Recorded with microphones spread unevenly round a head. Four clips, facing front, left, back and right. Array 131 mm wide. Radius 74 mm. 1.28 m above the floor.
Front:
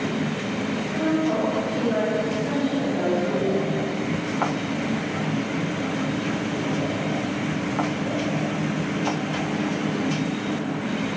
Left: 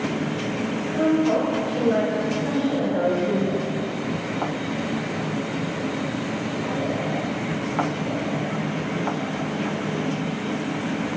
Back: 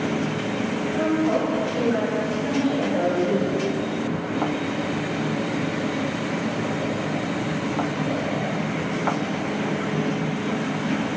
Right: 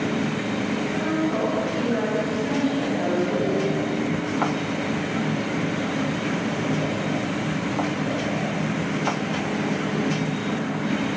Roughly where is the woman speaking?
Behind left.